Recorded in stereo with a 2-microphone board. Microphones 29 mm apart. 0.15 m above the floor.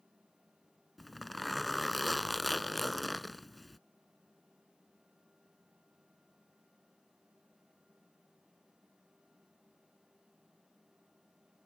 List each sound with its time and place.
1.0 s a zipper: centre (ahead or behind)